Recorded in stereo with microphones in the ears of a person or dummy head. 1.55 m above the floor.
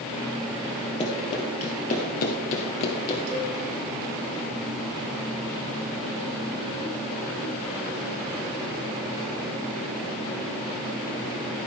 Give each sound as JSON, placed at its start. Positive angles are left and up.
{"t": 1.0, "sound": "running footsteps", "side_deg": 30, "distance_m": 3.0}
{"t": 3.3, "sound": "a cowbell", "side_deg": -65, "distance_m": 3.5}